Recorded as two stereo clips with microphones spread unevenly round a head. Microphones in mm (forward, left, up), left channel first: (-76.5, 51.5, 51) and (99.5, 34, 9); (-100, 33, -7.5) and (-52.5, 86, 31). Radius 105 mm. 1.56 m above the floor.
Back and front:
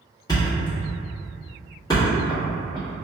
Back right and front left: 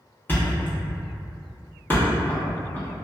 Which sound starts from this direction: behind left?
A thud, at 0.3 s.